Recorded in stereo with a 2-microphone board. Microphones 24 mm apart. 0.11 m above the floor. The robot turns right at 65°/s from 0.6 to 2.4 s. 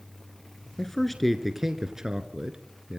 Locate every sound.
0.8 s a man speaking: 15° left (ahead or behind), 1.3 m; by 3.0 s 30° right (ahead or behind), 1.3 m